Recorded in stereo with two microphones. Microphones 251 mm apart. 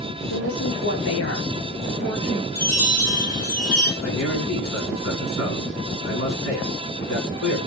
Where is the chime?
85° left, 7.5 m.